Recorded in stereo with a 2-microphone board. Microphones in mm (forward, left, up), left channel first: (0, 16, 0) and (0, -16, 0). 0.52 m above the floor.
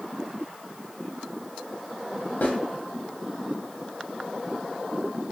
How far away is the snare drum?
About 0.7 m.